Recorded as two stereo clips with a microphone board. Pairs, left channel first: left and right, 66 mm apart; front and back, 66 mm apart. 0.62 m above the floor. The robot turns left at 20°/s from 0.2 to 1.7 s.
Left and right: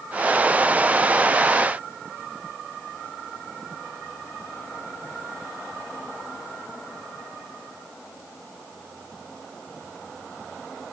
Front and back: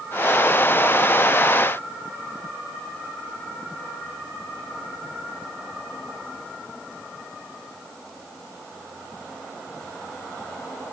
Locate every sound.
Only background noise.